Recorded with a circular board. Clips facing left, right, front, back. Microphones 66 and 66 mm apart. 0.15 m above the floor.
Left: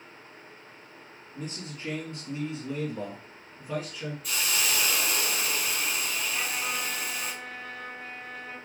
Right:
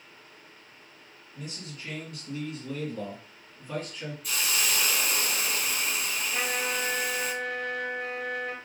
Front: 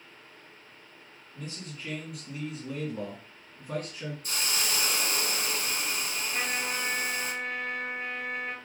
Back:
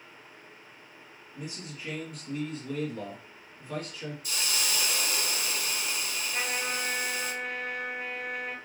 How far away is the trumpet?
About 0.6 m.